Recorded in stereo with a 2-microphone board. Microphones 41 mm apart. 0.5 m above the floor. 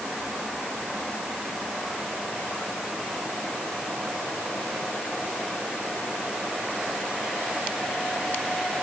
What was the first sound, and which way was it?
Only background noise.